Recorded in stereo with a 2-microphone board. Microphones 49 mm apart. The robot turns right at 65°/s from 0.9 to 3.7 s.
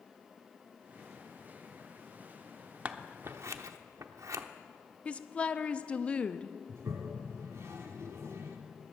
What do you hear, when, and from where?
2.9 s scissors: 30° right (ahead or behind), 0.7 m; by 4.4 s 80° right, 0.7 m
5.0 s a woman speaking: 20° left (ahead or behind), 0.6 m
6.7 s a toilet flushing: 65° right (ahead or behind), 1.7 m